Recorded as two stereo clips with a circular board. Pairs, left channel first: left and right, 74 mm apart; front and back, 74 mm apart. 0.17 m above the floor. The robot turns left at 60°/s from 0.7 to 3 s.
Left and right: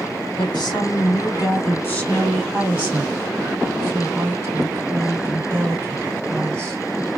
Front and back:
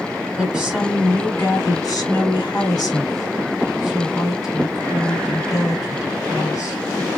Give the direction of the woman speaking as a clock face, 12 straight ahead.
9 o'clock.